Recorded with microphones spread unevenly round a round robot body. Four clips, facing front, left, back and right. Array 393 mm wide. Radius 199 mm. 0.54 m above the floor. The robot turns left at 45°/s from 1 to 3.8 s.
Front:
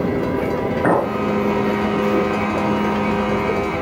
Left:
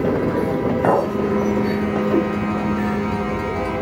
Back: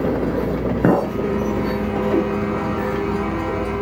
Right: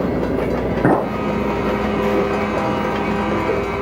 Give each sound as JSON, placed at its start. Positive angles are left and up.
{"t": 0.8, "sound": "a clink", "azimuth_deg": -150, "distance_m": 1.7}